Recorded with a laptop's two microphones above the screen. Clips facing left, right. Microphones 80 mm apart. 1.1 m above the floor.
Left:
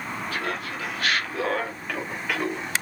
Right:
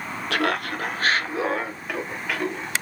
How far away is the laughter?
About 0.8 m.